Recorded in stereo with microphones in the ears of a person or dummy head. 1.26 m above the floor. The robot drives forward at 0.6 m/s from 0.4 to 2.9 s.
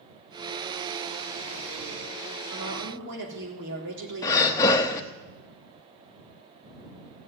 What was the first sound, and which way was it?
A woman speaking, 65° right (ahead or behind).